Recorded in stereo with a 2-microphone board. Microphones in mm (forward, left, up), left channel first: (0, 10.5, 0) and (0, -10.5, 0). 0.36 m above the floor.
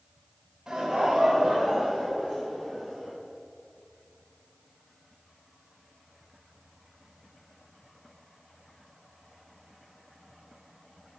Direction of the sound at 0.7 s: 25° right (ahead or behind).